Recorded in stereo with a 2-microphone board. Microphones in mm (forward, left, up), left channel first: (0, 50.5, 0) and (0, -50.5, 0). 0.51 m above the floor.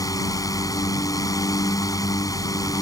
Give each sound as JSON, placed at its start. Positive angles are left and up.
{"t": 0.0, "sound": "a drone", "side_deg": 35}